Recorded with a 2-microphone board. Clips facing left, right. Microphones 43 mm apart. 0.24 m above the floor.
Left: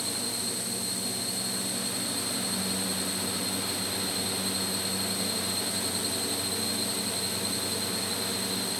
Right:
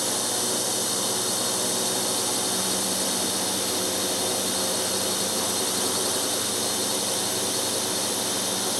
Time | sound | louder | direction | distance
0.0 | a drone | right 6 dB | 70° right (ahead or behind) | ?